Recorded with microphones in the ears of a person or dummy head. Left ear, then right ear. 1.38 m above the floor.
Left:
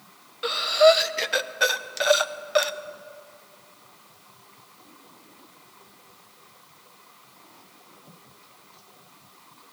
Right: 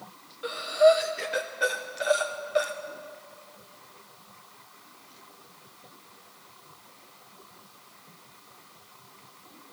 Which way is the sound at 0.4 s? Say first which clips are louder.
Left 3 dB; 40° left (ahead or behind).